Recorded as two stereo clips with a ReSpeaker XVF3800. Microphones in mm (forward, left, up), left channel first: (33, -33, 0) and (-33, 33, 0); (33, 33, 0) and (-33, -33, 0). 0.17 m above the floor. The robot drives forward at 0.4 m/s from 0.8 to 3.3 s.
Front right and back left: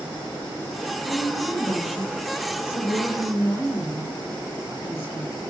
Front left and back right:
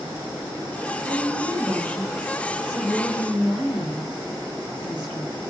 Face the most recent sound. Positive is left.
turn(degrees=-110)